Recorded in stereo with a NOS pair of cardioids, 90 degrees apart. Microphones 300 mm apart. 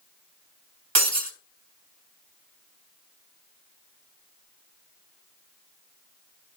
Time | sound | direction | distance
0.9 | breaking glass | 55° right | 2.5 m